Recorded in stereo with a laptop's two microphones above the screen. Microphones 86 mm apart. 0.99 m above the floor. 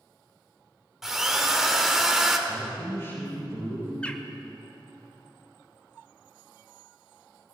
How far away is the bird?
About 0.7 m.